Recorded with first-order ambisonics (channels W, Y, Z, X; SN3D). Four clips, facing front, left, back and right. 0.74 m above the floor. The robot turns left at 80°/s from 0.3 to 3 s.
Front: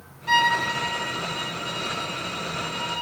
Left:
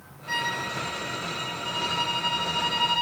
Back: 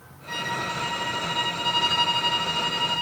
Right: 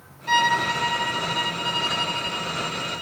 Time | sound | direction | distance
0.3 | a violin | 50° right | 2.5 m